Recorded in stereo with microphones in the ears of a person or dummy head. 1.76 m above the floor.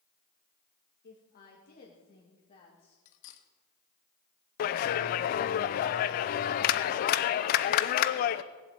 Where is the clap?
50° left (ahead or behind), 0.7 m.